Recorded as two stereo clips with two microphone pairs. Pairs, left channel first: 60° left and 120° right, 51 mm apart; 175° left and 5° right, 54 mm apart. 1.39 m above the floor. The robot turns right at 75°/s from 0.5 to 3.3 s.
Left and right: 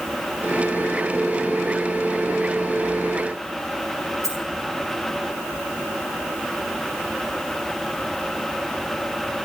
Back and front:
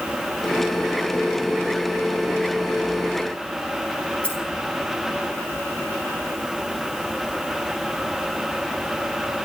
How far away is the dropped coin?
About 9 m.